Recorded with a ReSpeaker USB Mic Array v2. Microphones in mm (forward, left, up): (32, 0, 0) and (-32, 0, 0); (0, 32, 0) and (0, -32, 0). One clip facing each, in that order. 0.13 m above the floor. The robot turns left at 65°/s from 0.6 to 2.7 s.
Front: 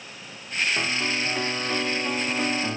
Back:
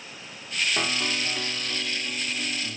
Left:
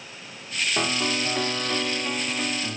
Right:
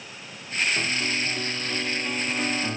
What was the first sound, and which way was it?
A piano, 105° left.